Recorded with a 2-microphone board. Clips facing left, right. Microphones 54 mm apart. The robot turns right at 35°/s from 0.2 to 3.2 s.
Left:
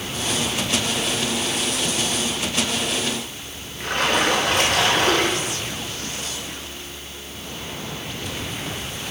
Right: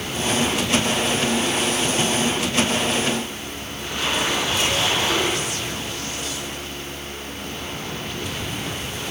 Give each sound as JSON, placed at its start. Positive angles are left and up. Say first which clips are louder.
{"t": 3.8, "sound": "a splash", "louder": "left 4 dB", "side_deg": 65, "distance_m": 7.5}